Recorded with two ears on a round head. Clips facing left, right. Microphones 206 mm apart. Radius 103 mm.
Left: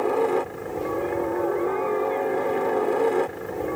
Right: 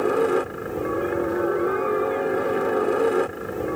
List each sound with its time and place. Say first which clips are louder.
0.0 s a helicopter: right 2 dB; 15° right (ahead or behind); by 3.8 s 10° right (ahead or behind)